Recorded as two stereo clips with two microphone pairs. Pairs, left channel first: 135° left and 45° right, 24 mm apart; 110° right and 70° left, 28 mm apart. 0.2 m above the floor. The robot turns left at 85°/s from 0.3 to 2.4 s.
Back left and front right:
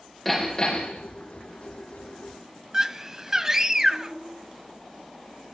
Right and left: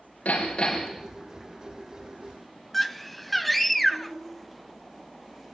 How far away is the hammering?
About 8.5 m.